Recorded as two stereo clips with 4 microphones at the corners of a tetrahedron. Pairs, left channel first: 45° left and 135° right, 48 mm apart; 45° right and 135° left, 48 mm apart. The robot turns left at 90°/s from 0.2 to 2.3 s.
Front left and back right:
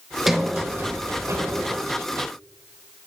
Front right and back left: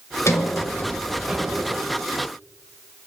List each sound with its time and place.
0.3 s a sliding door: 50° right, 2 m; by 1.8 s 170° left, 2 m